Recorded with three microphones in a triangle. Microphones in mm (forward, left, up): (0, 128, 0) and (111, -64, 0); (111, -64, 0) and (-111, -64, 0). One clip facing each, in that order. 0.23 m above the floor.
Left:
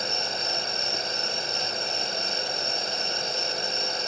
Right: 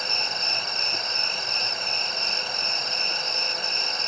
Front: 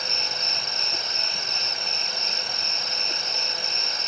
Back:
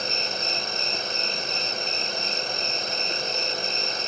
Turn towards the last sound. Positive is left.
turn(degrees=-175)